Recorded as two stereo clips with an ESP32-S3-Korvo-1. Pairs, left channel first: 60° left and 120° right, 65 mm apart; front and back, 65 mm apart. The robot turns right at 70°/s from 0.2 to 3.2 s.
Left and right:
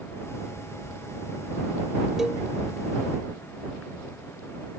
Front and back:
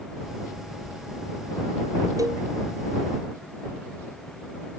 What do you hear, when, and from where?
2.2 s a cowbell: 155° left; by 2.5 s 175° left